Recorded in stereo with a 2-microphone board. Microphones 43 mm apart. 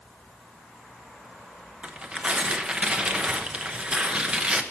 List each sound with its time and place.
1.8 s tearing paper: 25° right (ahead or behind), 0.9 m